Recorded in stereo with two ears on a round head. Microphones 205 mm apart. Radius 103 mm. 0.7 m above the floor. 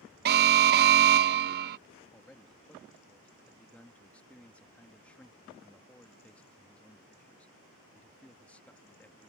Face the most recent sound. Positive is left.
turn(degrees=5)  # may be behind; listen again after turning